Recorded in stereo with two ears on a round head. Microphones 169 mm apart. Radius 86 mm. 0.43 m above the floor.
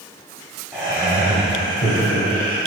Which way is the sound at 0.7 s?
5° left (ahead or behind).